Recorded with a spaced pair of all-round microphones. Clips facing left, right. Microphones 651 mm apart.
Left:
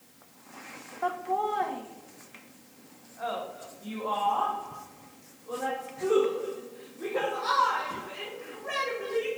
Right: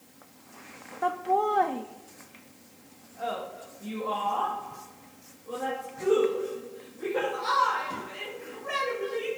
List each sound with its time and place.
1.0 s laughter: 55° right (ahead or behind), 0.6 m; by 9.3 s 40° right (ahead or behind), 4.5 m